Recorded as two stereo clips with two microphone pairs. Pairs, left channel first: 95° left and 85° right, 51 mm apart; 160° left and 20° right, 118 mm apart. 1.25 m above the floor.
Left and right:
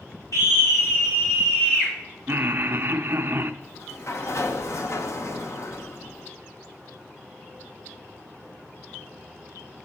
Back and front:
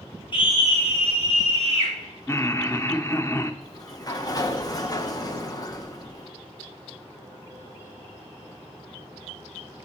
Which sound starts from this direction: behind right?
Laughter, at 2.3 s.